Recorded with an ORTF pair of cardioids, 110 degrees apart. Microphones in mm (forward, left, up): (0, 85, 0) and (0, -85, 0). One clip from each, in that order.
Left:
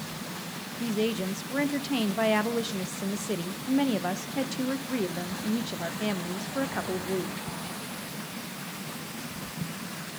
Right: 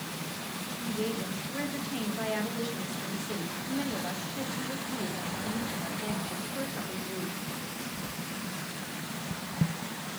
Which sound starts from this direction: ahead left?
A woman speaking, at 0.8 s.